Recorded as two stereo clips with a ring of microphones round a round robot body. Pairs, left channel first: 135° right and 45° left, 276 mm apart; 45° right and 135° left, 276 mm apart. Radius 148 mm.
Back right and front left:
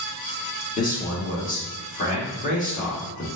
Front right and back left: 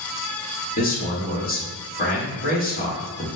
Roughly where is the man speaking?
Right.